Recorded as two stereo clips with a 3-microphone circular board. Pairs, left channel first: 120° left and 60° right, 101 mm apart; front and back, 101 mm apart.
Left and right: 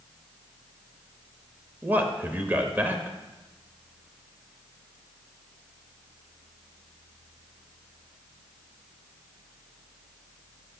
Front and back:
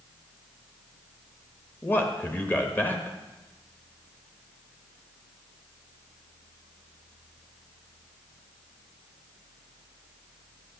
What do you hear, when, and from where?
1.8 s a man speaking: 25° right, 0.9 m